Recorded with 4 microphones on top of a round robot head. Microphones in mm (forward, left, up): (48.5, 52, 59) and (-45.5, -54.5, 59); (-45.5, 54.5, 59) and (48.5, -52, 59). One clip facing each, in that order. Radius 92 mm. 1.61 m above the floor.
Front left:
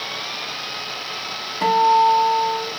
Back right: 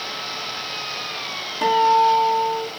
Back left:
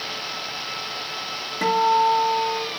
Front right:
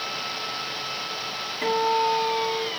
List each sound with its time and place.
1.6 s a guitar: 140° left, 1.7 m